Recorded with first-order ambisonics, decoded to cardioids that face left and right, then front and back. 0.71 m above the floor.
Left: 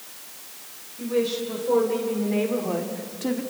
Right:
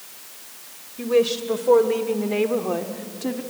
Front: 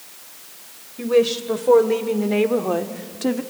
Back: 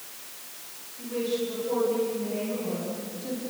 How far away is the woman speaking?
About 2.5 m.